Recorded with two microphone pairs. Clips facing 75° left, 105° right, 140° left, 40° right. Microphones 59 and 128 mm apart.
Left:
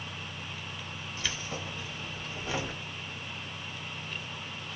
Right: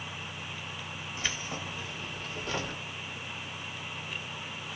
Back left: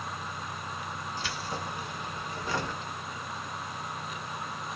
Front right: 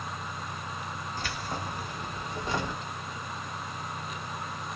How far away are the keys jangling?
About 1.6 m.